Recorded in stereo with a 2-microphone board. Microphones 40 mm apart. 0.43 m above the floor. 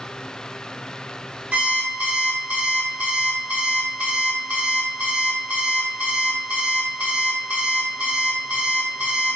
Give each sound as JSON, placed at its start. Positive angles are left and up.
{"t": 1.5, "sound": "an alarm clock", "side_deg": -45, "distance_m": 0.8}